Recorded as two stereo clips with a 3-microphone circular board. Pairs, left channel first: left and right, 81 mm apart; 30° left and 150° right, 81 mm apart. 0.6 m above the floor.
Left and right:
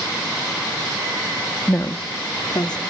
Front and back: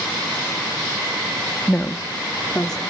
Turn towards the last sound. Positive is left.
turn(degrees=110)